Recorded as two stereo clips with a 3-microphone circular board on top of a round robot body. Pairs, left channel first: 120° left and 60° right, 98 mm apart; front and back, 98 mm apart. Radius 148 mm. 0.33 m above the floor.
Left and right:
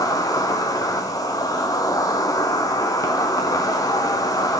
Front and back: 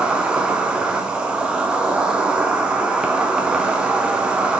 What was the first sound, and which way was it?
An insect, 105° left.